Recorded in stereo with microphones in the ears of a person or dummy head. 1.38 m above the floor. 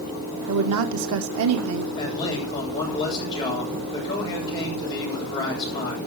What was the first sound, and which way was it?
A woman speaking, 80° right.